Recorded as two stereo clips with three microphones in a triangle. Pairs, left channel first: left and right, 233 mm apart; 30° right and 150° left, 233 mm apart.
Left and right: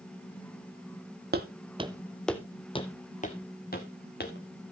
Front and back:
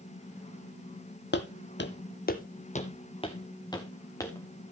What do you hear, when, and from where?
1.3 s footsteps: 55° right, 0.8 m; by 4.7 s 50° left, 2 m